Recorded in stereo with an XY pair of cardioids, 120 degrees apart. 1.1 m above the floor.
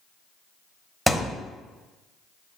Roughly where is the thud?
Ahead.